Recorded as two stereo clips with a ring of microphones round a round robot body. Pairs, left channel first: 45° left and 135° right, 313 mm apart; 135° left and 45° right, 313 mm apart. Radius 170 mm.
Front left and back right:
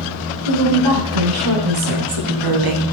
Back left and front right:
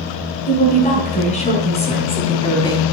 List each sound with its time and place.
0.5 s a woman speaking: 155° right, 5 m; by 2.8 s 145° right, 3 m